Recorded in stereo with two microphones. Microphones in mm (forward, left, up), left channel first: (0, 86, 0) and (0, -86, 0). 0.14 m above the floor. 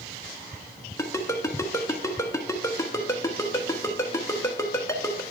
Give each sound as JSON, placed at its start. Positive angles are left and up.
{"t": 1.0, "sound": "a ringtone", "side_deg": 20, "distance_m": 1.1}